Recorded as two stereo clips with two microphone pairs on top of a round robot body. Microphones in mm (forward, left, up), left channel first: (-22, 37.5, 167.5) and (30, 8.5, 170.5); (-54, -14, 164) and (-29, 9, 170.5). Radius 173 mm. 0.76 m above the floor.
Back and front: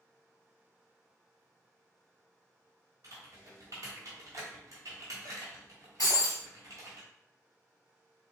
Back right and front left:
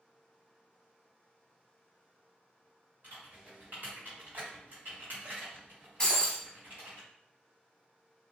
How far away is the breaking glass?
About 0.7 m.